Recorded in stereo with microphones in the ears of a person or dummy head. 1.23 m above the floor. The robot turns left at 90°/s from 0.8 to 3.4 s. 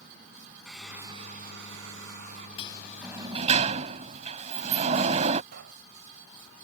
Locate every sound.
0.7 s a hair dryer: 5° left; by 2.5 s 145° right
2.6 s a sliding door: 40° left; by 5.4 s 35° right
5.5 s a pop: 60° right (ahead or behind)